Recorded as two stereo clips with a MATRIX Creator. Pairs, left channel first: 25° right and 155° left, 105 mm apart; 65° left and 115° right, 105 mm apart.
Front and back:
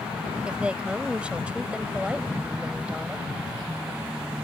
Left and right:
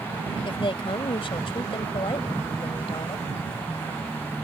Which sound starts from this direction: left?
A woman speaking, at 0.5 s.